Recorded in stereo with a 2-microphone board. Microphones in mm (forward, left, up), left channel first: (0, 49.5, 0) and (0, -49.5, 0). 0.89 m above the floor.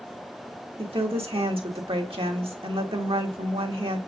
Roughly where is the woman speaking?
Right.